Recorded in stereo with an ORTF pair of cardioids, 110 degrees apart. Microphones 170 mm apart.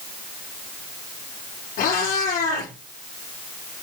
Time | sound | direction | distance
1.8 | a cat meowing | 65° left | 6.5 m